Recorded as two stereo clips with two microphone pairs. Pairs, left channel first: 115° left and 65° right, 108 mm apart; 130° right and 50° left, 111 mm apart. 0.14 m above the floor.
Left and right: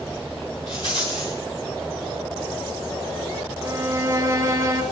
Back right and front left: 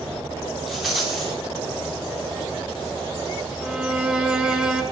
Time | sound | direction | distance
0.7 | a rattle | 140° left | 4 m
3.6 | a violin | 30° right | 2 m